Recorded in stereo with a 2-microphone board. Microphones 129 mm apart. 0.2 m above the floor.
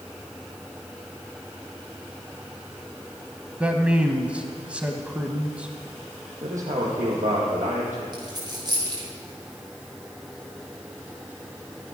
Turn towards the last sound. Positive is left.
turn(degrees=-35)  # may be behind; listen again after turning